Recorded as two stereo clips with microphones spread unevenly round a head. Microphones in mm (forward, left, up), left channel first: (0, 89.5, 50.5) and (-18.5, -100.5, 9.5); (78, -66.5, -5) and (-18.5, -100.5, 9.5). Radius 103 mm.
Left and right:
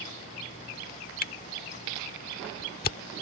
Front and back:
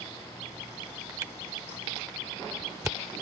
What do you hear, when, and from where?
1.2 s a camera shutter: 125° left